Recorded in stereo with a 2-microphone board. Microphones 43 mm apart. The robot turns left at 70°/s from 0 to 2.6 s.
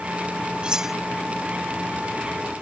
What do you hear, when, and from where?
0.6 s cutlery clinking: 25° right (ahead or behind); by 0.9 s centre (ahead or behind)